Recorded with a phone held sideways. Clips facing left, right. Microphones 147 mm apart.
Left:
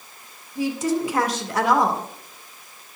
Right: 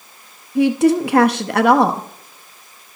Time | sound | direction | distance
0.6 | a woman speaking | 65° right (ahead or behind) | 0.8 m